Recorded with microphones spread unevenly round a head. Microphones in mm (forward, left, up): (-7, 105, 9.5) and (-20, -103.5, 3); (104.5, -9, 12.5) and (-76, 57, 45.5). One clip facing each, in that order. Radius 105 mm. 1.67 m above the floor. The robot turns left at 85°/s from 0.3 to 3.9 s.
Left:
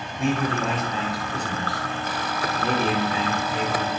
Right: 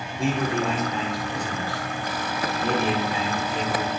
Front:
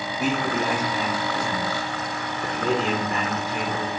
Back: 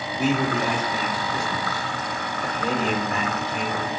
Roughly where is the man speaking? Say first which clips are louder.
Even, back 2 dB; behind right.